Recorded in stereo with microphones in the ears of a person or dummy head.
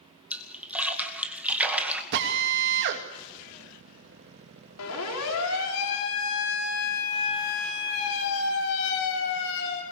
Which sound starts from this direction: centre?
A splash, at 0.3 s.